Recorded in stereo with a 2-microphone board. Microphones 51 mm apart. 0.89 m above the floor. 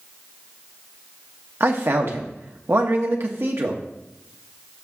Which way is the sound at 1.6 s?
60° right (ahead or behind).